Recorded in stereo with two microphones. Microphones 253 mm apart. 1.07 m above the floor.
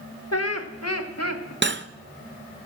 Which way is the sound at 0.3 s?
70° left (ahead or behind).